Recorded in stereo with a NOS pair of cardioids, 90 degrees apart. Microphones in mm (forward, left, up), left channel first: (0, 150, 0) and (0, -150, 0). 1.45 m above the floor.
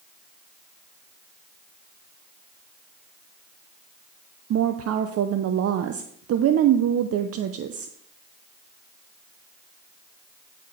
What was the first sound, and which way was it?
A woman speaking, 55° right.